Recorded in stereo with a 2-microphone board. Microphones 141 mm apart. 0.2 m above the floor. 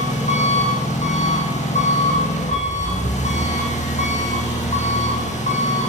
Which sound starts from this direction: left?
An engine running, at 0.0 s.